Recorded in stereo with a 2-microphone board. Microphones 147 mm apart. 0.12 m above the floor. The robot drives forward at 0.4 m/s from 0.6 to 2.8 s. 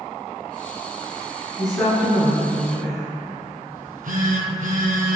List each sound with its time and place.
1.6 s a woman speaking: centre (ahead or behind), 1.6 m
3.8 s a phone buzzing: 70° right (ahead or behind), 0.6 m